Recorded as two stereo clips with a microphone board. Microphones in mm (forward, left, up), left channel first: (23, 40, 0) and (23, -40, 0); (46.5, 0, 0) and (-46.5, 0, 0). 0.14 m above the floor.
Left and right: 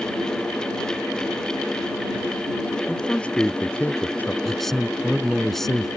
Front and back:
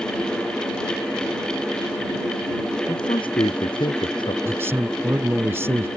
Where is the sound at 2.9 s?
15° left; by 4.3 s 25° left.